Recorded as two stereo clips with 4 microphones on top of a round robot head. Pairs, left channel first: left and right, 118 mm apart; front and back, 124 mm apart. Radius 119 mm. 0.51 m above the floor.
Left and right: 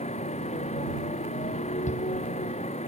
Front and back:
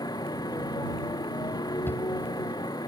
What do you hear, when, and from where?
0.0 s a motorcycle: 60° left
1.9 s a shout: 75° left